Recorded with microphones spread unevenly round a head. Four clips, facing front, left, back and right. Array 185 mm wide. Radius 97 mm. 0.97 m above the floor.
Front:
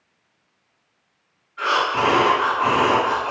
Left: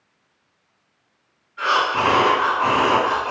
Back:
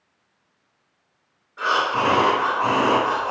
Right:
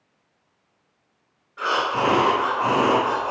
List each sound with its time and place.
1.6 s breathing: 140° right, 1.7 m